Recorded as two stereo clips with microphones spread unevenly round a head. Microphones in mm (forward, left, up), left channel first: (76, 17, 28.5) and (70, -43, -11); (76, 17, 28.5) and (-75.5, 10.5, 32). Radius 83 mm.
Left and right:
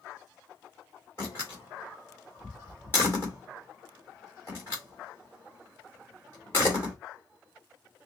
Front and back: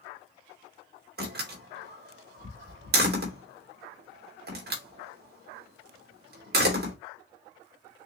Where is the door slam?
160° left, 2.5 m.